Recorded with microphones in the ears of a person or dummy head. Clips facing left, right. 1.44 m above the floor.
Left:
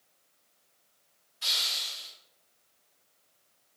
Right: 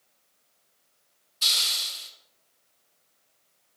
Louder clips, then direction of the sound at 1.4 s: Right 2 dB; 50° right (ahead or behind).